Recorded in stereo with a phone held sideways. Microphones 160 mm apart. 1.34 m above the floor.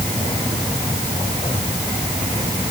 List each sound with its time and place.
Only background noise.